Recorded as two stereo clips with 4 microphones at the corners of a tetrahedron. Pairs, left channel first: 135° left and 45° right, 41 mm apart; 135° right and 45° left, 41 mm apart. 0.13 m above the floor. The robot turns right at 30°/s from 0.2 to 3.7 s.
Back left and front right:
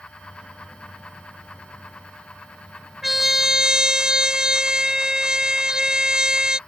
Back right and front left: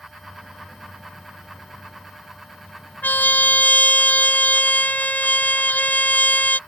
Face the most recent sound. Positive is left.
turn(degrees=-110)